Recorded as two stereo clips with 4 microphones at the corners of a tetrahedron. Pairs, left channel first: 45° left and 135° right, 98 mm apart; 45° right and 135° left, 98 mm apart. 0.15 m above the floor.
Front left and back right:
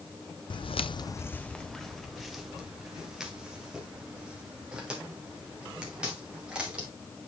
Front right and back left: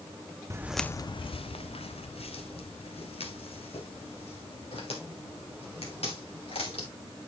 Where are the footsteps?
75° left, 0.6 m; by 6.9 s 55° right, 7 m.